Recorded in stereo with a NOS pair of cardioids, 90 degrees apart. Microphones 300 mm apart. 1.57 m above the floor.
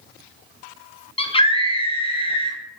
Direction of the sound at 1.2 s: 20° left.